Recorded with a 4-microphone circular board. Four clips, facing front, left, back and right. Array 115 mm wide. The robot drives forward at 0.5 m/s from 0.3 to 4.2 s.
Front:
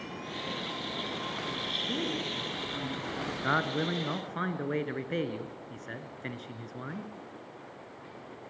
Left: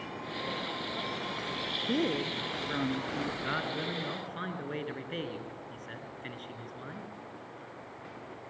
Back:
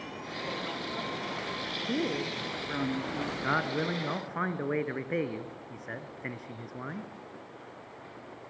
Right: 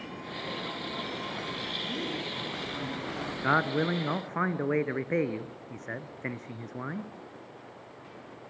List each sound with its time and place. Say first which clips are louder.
1.9 s a woman speaking: left 7 dB, back 4 dB; 120° left, 2.5 m; by 3.3 s 135° left, 3 m
3.4 s a man speaking: right 8 dB, front 1 dB; 85° right, 2.0 m; by 7.1 s 100° right, 2.0 m